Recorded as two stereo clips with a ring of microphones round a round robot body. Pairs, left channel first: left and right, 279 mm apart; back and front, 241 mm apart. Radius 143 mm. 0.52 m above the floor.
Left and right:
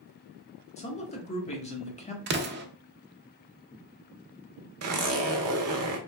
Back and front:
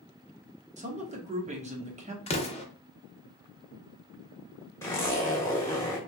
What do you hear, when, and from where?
0.8 s a man speaking: 40° left, 1.0 m
2.3 s an explosion: 125° right, 0.6 m
4.8 s a zipper: 100° right, 0.7 m